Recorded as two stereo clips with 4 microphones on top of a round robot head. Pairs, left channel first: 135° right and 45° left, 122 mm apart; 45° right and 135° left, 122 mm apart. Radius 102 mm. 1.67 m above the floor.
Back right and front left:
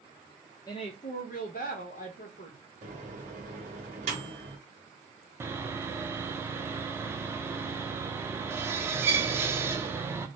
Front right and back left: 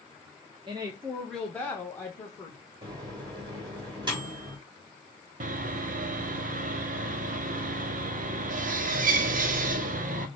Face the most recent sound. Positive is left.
turn(degrees=115)